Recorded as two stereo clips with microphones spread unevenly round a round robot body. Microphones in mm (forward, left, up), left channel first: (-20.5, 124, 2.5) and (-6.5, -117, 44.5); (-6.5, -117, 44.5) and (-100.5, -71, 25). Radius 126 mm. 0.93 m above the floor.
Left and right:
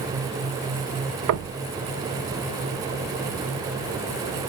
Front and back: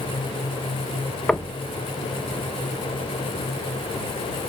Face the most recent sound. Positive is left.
turn(degrees=-115)